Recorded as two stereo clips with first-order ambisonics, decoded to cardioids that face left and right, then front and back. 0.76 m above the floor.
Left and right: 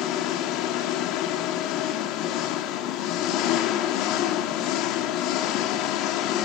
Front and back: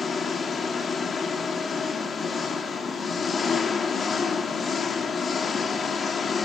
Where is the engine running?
70° left, 1.5 m.